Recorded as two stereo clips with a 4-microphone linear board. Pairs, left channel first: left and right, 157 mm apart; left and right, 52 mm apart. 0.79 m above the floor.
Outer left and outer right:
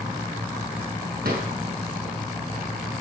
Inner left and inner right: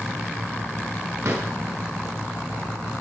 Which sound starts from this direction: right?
A drawer, at 1.2 s.